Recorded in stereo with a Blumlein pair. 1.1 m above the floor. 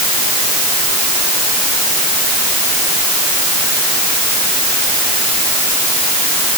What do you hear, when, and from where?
Only background noise.